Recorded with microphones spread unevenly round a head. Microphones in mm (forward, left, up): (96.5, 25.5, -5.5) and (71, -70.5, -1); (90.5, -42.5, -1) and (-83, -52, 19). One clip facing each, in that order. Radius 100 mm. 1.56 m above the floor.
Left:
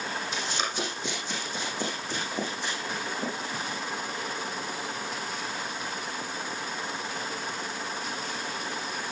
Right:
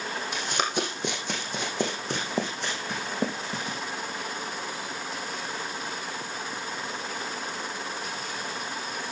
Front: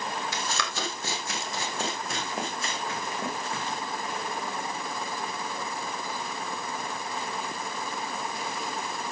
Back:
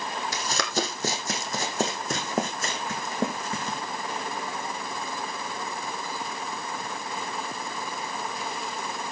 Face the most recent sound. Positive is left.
turn(degrees=-135)